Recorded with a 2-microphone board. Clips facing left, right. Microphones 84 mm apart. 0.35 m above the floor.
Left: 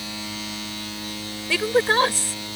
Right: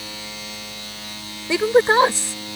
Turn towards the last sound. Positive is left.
turn(degrees=-20)  # may be behind; listen again after turning